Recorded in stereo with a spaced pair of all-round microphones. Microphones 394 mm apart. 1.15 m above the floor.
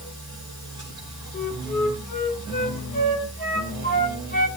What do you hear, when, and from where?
0.0 s a machine running: 50° left (ahead or behind), 8.5 m
1.3 s a flute: 20° left (ahead or behind), 3.5 m